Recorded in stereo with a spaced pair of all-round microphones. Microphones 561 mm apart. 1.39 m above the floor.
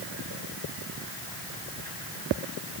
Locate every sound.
Only background noise.